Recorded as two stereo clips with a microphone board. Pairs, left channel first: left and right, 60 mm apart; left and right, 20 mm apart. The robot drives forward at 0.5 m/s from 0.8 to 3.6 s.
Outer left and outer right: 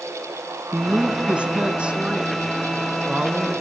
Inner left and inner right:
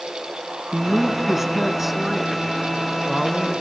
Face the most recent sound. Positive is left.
turn(degrees=-10)  # may be behind; listen again after turning